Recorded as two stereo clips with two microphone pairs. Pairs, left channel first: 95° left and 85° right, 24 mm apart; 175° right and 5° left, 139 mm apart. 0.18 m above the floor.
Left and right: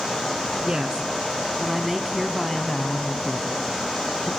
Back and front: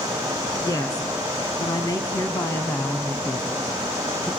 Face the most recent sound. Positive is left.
turn(degrees=100)